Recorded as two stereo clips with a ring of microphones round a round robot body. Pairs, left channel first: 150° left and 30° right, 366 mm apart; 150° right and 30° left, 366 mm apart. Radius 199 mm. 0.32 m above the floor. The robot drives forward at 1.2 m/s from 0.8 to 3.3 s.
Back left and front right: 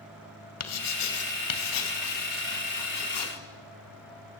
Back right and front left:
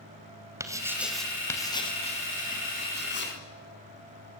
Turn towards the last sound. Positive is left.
turn(degrees=150)